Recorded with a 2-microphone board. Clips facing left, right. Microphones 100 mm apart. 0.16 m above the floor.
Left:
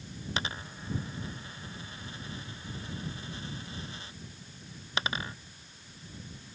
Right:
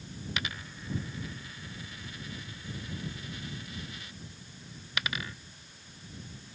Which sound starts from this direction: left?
A dropped coin, at 0.4 s.